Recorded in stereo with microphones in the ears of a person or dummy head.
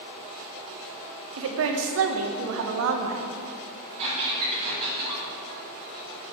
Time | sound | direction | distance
1.4 | a woman speaking | 75° right (ahead or behind) | 0.6 m
4.0 | a squeak | 35° right (ahead or behind) | 1.8 m